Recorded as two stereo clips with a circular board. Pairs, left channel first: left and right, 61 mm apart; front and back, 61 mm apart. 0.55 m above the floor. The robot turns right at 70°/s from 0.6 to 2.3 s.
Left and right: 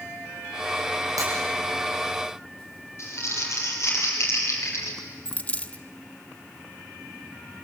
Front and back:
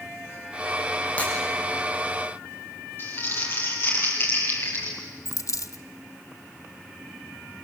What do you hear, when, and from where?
1.2 s breaking glass: 65° right, 8 m; by 1.3 s 55° right, 8 m
3.0 s crumpling: 50° left, 6.5 m
5.2 s a dropped coin: 25° left, 0.9 m